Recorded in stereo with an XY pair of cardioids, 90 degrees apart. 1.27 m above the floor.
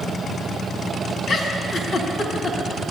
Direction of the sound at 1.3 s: 65° left.